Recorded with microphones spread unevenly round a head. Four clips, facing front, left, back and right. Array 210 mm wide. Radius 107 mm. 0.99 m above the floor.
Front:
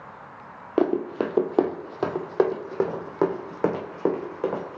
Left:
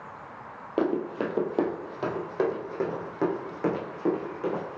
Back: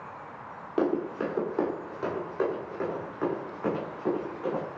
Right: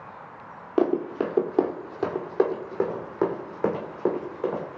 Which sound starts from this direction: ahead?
Running footsteps, at 0.8 s.